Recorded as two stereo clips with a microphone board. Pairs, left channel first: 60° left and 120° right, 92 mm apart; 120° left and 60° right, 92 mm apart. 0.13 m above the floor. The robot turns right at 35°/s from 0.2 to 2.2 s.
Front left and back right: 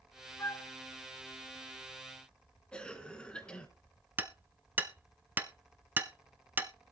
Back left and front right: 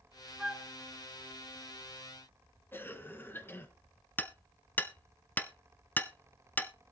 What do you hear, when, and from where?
0.4 s a flute: 15° left, 0.5 m; by 0.7 s 30° left, 0.5 m
2.7 s a cough: 120° left, 1.4 m
4.2 s hammering: straight behind, 0.7 m